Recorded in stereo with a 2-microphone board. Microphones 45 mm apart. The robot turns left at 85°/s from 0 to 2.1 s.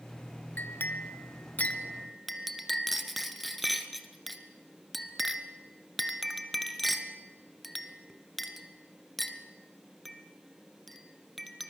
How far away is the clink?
About 1.4 m.